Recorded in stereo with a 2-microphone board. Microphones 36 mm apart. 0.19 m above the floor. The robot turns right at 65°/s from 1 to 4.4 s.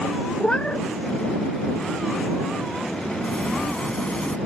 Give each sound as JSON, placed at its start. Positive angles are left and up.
{"t": 0.4, "sound": "a cat meowing", "side_deg": 30}
{"t": 3.2, "sound": "a sliding door", "azimuth_deg": 50}